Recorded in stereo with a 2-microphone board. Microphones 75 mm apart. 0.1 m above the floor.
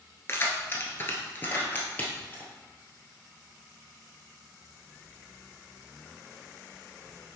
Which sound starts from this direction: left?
Keys jangling, at 0.3 s.